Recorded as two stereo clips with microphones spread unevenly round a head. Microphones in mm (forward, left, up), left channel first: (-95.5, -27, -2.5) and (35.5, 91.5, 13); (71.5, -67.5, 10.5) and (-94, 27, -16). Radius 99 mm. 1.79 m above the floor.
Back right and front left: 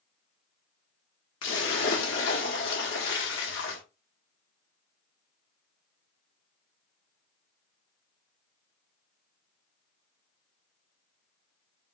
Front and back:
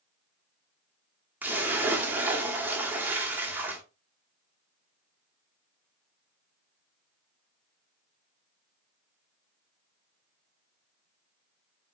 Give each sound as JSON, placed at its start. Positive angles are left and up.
{"t": 1.4, "sound": "a splash", "azimuth_deg": -125, "distance_m": 1.1}